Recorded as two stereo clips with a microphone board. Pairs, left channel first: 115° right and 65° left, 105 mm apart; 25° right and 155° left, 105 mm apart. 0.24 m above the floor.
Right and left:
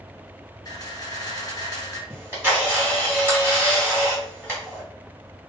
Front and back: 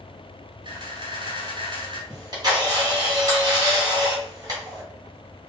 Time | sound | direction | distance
0.7 | a camera shutter | 165° right | 1.6 m
2.1 | a camera shutter | 130° left | 2 m